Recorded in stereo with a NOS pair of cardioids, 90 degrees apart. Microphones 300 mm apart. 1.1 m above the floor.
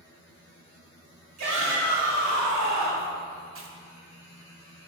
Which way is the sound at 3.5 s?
45° right.